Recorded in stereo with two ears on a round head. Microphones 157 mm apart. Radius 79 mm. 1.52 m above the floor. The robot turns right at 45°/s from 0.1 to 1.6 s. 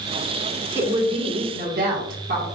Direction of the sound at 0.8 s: 165° right.